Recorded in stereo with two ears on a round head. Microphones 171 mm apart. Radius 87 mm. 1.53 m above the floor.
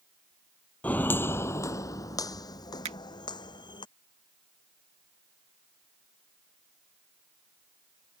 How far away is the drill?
I don't hear a drill.